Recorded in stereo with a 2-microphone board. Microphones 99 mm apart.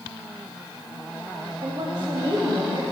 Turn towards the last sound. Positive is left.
turn(degrees=-65)  # may be behind; listen again after turning